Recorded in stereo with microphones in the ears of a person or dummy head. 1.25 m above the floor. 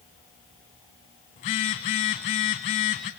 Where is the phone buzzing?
35° left (ahead or behind), 1.4 m.